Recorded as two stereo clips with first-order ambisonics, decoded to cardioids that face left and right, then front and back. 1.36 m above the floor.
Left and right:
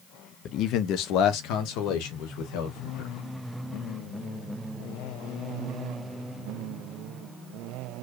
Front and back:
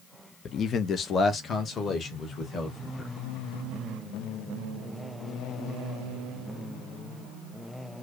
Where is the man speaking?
55° left, 0.5 m; by 3.1 s 70° left, 2 m.